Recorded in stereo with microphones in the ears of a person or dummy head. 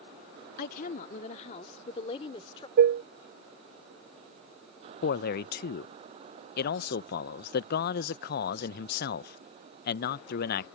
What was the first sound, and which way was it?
A woman speaking, 50° left (ahead or behind).